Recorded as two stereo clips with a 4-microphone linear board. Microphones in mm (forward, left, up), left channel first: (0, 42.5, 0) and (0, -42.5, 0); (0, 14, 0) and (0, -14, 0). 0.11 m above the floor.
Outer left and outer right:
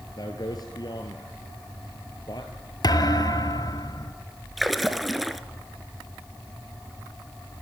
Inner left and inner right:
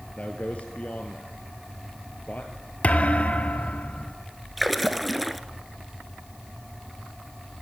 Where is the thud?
50° left (ahead or behind), 0.9 m.